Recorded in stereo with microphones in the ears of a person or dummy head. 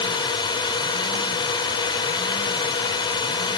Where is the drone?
25° left (ahead or behind).